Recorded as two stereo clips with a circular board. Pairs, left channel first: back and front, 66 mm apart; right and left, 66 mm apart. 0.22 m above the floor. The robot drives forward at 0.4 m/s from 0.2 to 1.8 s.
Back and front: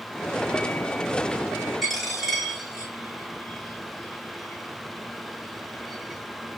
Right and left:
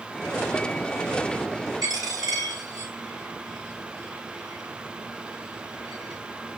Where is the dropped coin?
90° left, 6.5 m.